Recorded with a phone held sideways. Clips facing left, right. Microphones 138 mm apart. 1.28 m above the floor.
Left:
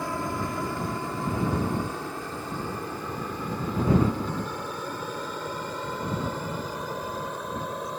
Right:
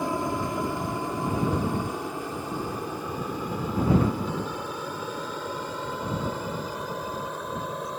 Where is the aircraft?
20° right (ahead or behind); by 8.0 s 5° right (ahead or behind).